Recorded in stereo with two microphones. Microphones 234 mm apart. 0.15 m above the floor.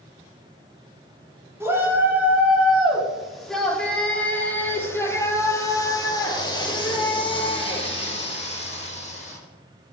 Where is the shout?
10° right (ahead or behind), 5.5 m; by 9.4 s 30° left (ahead or behind), 7.5 m.